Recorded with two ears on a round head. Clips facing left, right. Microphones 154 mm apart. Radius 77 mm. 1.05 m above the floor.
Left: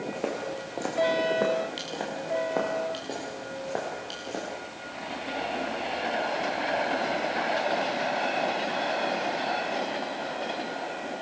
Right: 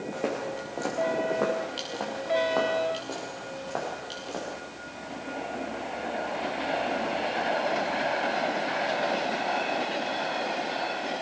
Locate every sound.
0.1 s footsteps: centre (ahead or behind), 5.5 m; by 4.5 s 20° left (ahead or behind), 10 m